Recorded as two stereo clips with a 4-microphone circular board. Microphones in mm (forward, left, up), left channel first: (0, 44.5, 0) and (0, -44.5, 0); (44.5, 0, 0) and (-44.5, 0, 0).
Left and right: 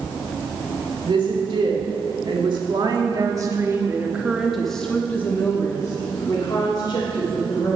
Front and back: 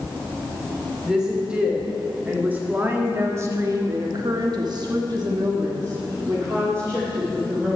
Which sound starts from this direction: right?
A woman speaking, at 1.1 s.